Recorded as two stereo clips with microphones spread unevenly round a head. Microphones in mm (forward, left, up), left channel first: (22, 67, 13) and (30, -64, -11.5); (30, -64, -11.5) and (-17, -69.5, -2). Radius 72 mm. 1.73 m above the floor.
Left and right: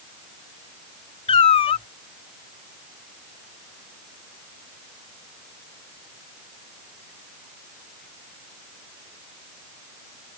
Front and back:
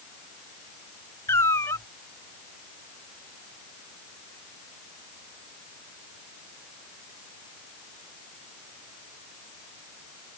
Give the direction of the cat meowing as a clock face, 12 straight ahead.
10 o'clock.